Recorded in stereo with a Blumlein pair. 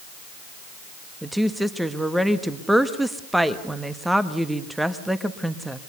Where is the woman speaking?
5° right, 1.5 m.